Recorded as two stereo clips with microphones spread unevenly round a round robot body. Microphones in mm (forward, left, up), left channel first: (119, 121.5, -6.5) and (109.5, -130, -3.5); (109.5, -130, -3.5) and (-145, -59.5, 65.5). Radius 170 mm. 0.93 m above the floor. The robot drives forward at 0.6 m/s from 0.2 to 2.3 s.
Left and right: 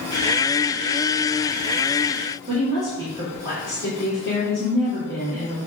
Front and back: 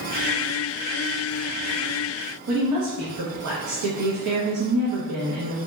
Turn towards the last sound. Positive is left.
turn(degrees=-170)